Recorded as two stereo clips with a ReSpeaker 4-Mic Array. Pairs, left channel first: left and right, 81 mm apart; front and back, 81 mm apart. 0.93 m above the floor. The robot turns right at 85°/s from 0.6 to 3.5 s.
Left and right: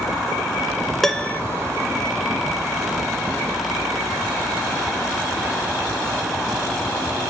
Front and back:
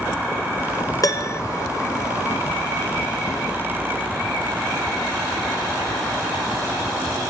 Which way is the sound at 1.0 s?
5° left.